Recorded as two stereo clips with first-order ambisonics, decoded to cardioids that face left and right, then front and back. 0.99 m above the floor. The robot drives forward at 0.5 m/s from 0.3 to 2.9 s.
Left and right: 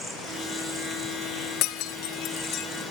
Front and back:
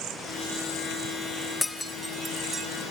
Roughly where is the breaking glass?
Left.